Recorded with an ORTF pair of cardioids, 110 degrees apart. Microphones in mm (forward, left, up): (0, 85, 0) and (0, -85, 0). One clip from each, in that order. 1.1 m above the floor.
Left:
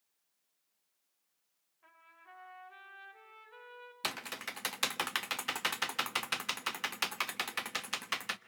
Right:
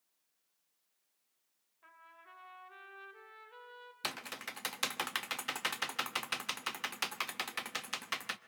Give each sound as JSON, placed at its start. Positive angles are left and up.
{"t": 1.8, "sound": "a trumpet", "azimuth_deg": -15, "distance_m": 5.5}
{"t": 4.0, "sound": "typing on a keyboard", "azimuth_deg": 10, "distance_m": 0.8}